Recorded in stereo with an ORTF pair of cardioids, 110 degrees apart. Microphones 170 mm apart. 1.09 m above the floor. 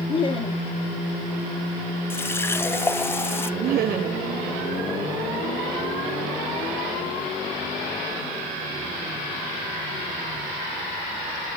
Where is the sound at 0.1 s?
30° left, 2.0 m.